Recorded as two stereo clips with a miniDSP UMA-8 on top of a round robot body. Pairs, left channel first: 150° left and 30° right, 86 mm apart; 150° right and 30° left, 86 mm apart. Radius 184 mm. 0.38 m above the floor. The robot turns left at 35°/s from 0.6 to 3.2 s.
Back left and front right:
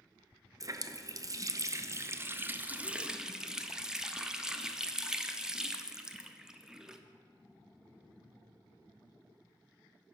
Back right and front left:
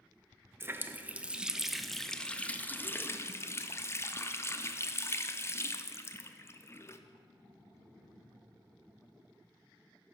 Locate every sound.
0.6 s a running tap: 20° right, 0.6 m; by 7.0 s 110° right, 0.6 m